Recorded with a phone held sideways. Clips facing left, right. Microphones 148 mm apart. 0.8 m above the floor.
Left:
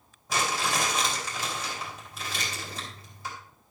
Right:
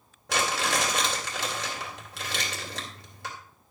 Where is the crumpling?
85° right, 3 m.